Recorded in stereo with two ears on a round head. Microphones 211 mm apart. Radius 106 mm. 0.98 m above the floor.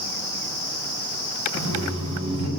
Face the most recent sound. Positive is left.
turn(degrees=-85)